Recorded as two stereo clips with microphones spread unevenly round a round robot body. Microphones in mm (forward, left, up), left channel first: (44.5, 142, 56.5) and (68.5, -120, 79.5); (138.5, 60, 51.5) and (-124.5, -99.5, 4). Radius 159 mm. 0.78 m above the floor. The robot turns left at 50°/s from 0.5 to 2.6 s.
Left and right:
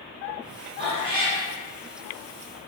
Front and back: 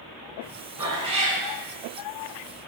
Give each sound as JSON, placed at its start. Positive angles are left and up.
{"t": 0.8, "sound": "a cat meowing", "azimuth_deg": -60, "distance_m": 0.9}